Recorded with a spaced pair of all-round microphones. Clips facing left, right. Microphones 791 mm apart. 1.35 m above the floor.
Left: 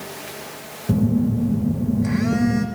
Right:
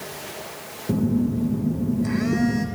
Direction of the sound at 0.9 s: 25° left (ahead or behind).